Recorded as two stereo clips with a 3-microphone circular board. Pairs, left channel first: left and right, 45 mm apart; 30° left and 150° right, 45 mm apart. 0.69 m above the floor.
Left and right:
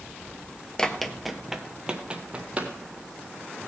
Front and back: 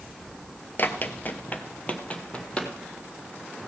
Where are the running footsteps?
20° left, 0.8 m; by 2.7 s 35° right, 1.6 m.